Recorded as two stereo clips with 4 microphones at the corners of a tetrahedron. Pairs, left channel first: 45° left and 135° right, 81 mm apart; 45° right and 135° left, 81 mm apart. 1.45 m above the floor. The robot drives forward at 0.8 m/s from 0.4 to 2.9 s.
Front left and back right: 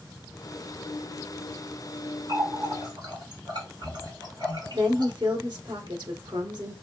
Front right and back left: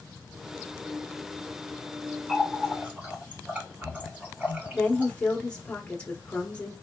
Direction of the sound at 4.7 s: 120° right.